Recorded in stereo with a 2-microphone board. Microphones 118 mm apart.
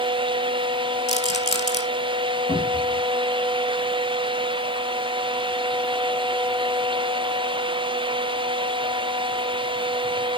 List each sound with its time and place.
1.1 s a rattle: 75° left (ahead or behind), 2.5 m
2.5 s a cupboard door: 60° left (ahead or behind), 6 m